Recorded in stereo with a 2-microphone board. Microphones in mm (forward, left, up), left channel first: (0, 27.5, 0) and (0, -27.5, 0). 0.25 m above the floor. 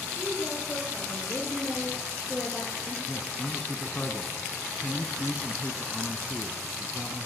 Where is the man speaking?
15° left (ahead or behind), 2.0 m.